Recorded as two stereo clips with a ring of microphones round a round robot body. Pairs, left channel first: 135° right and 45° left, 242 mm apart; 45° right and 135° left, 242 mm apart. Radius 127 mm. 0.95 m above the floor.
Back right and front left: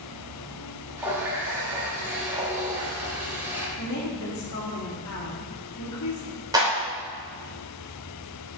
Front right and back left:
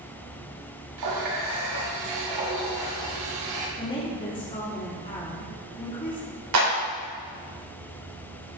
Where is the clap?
120° left, 3 m.